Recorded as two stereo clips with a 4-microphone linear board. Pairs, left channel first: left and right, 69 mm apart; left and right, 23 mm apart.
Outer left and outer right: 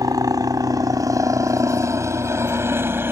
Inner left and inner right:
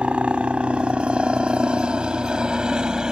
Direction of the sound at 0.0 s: 65° right (ahead or behind).